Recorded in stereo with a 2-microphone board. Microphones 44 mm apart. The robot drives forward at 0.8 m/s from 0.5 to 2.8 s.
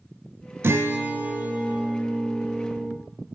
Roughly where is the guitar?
Right.